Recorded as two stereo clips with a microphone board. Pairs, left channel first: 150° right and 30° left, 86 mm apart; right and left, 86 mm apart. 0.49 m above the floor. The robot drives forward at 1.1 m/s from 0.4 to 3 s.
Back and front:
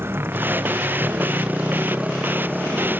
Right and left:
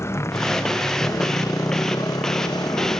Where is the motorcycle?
30° right; by 3.0 s 60° right.